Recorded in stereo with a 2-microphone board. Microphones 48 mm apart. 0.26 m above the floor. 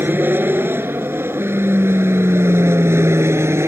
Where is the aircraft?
50° right (ahead or behind); by 3.7 s 70° right (ahead or behind).